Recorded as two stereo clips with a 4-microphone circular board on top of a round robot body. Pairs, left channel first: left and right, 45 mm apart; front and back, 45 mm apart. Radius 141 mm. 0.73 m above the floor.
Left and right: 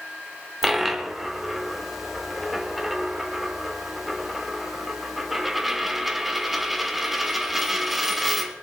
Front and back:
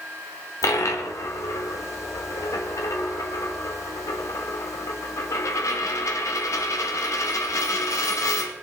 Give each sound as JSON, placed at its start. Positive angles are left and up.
{"t": 0.6, "sound": "a dropped coin", "azimuth_deg": -5, "distance_m": 0.9}